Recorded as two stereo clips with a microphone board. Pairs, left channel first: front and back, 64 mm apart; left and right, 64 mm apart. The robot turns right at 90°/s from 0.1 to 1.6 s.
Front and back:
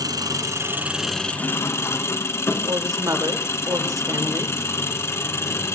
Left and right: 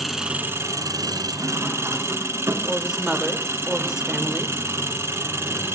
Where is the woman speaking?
170° right, 2 m.